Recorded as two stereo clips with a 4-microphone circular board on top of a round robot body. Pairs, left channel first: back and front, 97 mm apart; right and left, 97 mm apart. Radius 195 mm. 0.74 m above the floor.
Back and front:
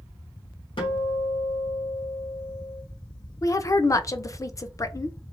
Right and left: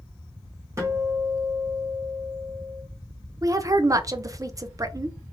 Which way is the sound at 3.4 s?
135° left.